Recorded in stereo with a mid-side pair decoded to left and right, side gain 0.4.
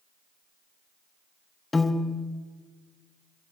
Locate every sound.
1.7 s a piano: 25° left, 0.8 m